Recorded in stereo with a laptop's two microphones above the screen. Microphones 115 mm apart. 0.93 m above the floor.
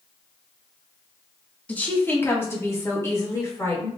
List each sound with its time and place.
1.7 s a woman speaking: 15° left (ahead or behind), 1.0 m; by 3.9 s 25° left (ahead or behind), 2.5 m